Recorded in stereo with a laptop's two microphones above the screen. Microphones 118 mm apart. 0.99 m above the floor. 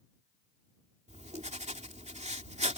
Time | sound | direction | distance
1.1 | writing | 75° right (ahead or behind) | ?